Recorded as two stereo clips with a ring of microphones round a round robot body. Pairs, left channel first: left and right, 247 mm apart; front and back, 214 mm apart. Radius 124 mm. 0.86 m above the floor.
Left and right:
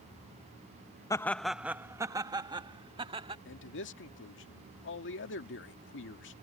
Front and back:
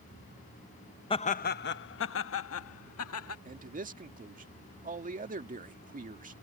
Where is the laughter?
30° left; by 3.4 s 20° right.